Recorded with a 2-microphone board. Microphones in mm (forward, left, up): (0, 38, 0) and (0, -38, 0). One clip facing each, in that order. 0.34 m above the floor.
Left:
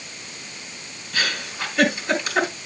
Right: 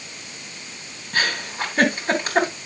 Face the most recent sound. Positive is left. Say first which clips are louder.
# right 2 dB
turn(degrees=-45)  # may be behind; listen again after turning